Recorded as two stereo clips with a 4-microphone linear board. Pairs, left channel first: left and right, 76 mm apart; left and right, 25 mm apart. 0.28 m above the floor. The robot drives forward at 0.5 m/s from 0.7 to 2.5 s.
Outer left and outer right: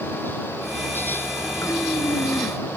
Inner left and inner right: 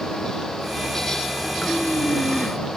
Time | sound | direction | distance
1.6 | breathing | 45° left (ahead or behind) | ?